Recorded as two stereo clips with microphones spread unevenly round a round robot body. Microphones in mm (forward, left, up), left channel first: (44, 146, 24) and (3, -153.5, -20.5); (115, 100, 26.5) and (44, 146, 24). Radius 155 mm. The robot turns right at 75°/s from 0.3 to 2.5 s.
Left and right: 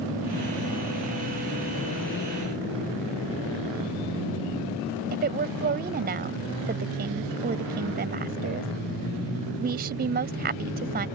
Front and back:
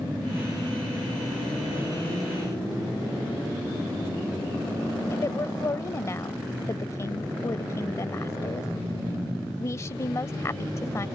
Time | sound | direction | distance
5.1 | a woman speaking | 70° right | ?